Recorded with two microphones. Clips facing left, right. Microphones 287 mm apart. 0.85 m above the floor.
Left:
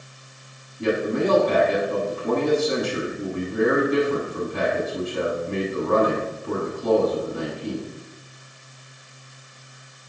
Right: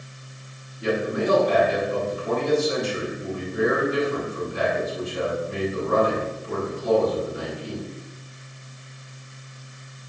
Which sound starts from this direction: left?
A man speaking, at 0.8 s.